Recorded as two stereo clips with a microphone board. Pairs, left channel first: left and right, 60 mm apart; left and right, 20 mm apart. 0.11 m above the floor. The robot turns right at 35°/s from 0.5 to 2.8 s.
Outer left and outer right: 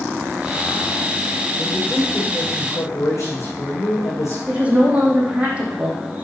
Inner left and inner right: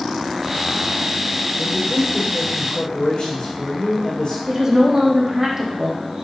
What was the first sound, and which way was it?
A man speaking, 20° left.